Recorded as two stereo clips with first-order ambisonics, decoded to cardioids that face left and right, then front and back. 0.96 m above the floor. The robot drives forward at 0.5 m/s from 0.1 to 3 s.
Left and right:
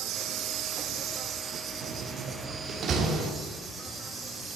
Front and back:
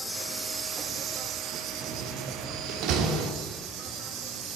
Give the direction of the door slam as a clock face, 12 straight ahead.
4 o'clock.